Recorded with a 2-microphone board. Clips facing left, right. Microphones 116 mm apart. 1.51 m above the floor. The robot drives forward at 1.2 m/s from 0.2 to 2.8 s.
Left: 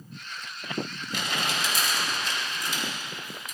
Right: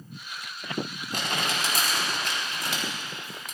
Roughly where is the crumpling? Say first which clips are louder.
Right 1 dB; right.